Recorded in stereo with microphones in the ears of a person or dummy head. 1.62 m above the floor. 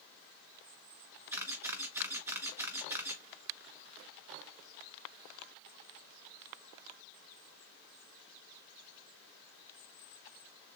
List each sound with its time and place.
1.3 s a camera shutter: 10° right (ahead or behind), 1.3 m